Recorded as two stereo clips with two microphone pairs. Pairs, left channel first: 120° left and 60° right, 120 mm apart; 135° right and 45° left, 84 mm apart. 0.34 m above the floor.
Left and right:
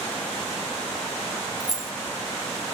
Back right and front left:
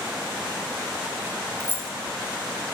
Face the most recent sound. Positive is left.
turn(degrees=-145)